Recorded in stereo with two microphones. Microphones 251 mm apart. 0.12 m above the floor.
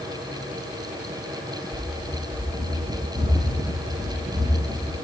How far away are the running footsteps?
About 3.5 m.